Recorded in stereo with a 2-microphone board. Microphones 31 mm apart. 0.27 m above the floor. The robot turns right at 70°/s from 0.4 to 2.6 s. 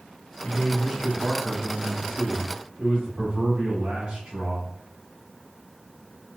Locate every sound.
0.4 s a man speaking: 110° left, 1.2 m; by 4.7 s 95° right, 1.2 m